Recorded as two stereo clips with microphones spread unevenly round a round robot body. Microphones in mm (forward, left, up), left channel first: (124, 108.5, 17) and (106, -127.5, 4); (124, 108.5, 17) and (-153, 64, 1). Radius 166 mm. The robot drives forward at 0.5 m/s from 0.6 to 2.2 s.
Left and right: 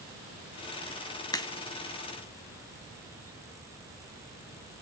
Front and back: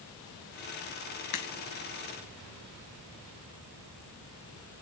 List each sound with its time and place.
1.3 s a crack: 10° left, 1.4 m